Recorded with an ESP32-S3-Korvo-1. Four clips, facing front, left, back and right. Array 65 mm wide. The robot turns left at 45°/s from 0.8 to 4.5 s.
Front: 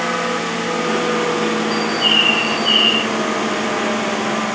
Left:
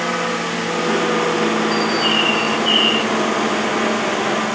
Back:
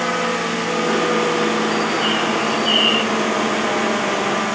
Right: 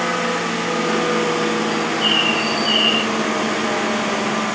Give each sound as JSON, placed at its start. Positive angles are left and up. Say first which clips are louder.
{"t": 1.7, "sound": "a bird", "louder": "left 2 dB, front 1 dB", "azimuth_deg": 25}